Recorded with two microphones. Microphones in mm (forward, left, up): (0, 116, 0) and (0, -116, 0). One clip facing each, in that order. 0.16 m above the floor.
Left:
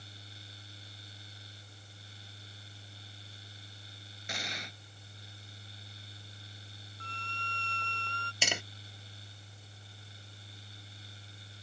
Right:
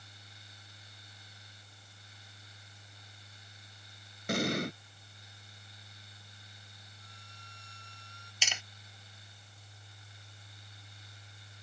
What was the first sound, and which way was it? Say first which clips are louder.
An explosion: right 15 dB; 60° right (ahead or behind).